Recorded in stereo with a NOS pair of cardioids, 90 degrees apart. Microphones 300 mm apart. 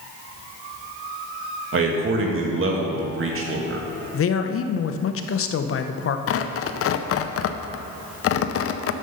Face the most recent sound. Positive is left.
turn(degrees=50)